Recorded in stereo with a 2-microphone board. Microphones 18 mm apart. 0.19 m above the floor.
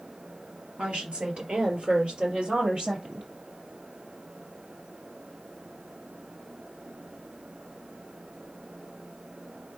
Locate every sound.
0.8 s a woman speaking: 70° right (ahead or behind), 3.5 m; by 3.3 s 60° right (ahead or behind), 4.5 m